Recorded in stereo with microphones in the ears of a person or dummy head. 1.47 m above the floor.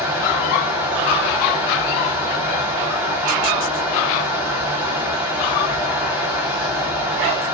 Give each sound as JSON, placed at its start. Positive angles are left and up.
{"t": 0.0, "sound": "a fan", "side_deg": -10, "distance_m": 4.5}